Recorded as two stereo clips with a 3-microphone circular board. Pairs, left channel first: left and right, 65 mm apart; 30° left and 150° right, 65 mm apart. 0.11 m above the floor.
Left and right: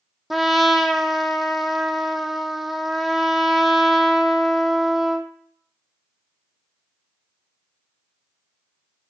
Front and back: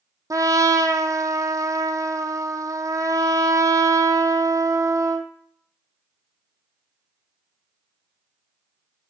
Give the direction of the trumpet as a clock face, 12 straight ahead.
6 o'clock.